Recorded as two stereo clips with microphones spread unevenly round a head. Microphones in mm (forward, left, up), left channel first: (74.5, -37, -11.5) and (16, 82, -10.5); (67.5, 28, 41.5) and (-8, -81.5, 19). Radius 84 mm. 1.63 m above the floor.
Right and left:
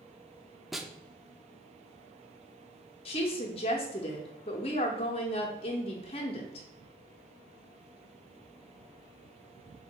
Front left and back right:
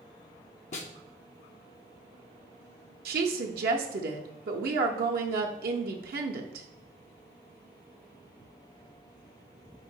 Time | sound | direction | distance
0.7 | a snare drum | 30° left | 0.5 m
3.0 | a woman speaking | 120° right | 0.6 m